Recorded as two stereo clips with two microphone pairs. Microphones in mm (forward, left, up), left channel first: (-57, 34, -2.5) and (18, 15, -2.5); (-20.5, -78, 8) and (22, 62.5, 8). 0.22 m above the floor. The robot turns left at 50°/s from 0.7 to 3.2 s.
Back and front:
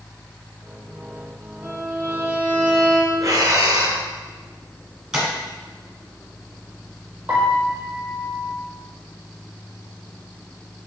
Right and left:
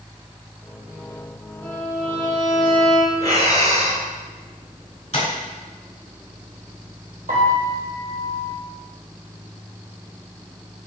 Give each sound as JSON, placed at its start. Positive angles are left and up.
{"t": 1.6, "sound": "a violin", "azimuth_deg": -35, "distance_m": 1.8}
{"t": 3.2, "sound": "breathing", "azimuth_deg": 30, "distance_m": 0.8}
{"t": 5.1, "sound": "tapping", "azimuth_deg": -95, "distance_m": 1.3}
{"t": 7.3, "sound": "a piano", "azimuth_deg": 60, "distance_m": 1.5}